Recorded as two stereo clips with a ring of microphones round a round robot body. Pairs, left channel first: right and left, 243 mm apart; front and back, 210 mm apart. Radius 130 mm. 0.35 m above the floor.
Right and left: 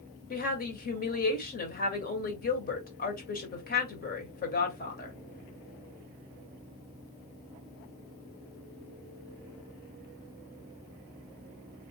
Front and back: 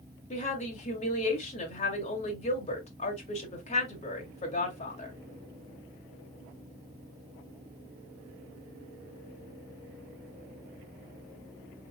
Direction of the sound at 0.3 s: 50° right.